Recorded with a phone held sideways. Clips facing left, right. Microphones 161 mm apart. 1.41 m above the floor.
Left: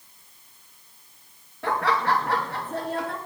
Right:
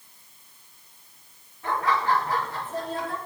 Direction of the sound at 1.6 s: 80° left.